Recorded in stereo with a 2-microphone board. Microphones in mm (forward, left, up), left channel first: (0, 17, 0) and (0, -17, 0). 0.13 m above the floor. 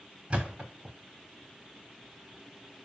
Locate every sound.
0.3 s a thud: 30° right (ahead or behind), 6.5 m